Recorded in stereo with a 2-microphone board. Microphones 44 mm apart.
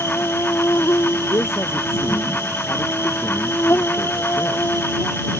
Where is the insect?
80° left.